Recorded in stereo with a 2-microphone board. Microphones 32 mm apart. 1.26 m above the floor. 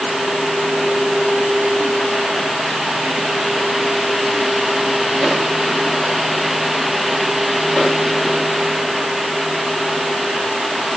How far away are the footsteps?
I don't hear footsteps.